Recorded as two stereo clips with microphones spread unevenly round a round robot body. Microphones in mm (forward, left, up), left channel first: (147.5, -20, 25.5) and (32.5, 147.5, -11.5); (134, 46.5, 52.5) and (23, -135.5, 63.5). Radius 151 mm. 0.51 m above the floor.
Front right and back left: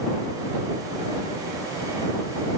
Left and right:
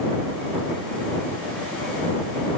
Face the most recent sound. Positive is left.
No sound to turn to.